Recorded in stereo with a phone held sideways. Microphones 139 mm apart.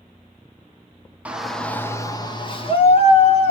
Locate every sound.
1.2 s a shout: 10° right (ahead or behind), 0.9 m; by 3.5 s 50° left (ahead or behind), 1.8 m